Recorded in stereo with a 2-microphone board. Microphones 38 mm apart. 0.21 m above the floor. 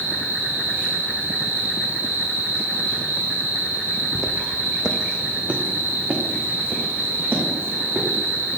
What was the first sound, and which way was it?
An insect, 80° right.